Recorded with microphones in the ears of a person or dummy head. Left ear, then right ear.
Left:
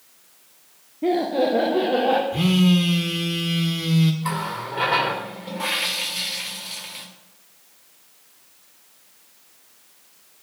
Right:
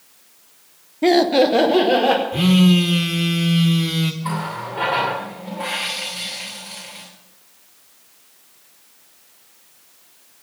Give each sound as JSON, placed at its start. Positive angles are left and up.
{"t": 1.0, "sound": "laughter", "side_deg": -45, "distance_m": 0.8}
{"t": 2.3, "sound": "a phone buzzing", "side_deg": -5, "distance_m": 1.1}
{"t": 4.2, "sound": "a running tap", "side_deg": 20, "distance_m": 2.5}